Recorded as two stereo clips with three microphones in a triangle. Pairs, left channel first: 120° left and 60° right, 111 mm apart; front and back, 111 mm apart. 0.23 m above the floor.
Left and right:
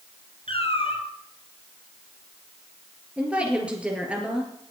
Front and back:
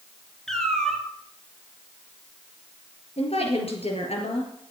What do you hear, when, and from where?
0.5 s a cat meowing: 85° left, 2 m
3.2 s a woman speaking: 20° left, 4 m